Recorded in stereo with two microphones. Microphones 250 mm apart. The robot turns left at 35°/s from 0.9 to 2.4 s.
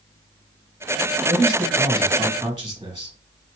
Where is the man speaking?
15° left, 2 m; by 3.1 s 25° right, 2 m.